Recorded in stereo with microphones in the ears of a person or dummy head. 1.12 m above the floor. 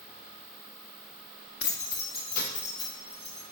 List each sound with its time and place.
1.6 s keys jangling: 65° left (ahead or behind), 0.6 m; by 3.4 s 30° left (ahead or behind), 1.3 m